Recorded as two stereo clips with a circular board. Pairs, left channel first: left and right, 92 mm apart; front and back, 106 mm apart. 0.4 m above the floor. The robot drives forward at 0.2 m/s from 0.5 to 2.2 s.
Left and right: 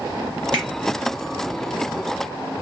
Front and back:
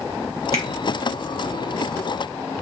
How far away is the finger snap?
About 4.5 m.